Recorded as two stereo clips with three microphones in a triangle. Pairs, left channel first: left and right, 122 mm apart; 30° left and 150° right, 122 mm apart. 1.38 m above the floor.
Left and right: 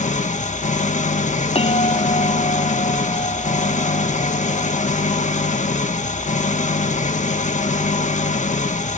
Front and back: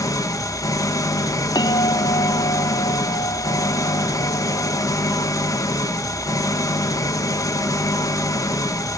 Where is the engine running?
90° left, 1.5 m.